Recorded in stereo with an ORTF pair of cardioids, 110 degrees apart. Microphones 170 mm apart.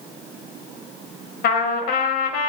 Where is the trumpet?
70° left, 1.0 m.